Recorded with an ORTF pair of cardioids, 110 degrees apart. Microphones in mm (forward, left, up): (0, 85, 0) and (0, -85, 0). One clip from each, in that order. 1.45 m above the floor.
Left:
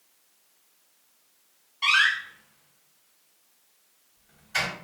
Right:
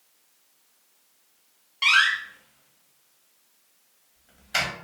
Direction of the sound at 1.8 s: 65° right.